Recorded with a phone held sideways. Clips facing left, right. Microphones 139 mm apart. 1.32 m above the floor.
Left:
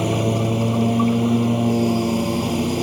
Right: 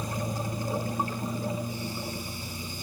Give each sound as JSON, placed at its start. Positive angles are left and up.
{"t": 0.0, "sound": "a lawn mower", "side_deg": 75}